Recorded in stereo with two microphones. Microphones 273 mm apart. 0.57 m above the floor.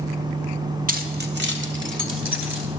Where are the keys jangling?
30° right (ahead or behind), 0.8 m; by 2.7 s 45° right (ahead or behind), 2 m.